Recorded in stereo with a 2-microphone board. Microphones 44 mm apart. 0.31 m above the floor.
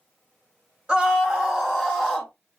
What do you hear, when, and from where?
0.9 s a scream: 15° right (ahead or behind), 2.0 m; by 2.3 s 5° left (ahead or behind), 1.7 m